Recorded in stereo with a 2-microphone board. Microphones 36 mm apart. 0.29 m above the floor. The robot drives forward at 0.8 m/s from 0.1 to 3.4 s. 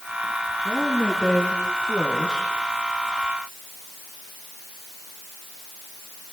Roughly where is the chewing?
I don't hear chewing.